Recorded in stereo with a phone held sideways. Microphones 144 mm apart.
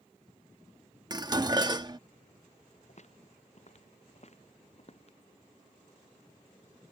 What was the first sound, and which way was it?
Dishes clattering, 30° right (ahead or behind).